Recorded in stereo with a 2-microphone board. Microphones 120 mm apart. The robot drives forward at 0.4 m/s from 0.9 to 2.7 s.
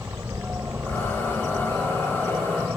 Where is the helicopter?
20° right (ahead or behind).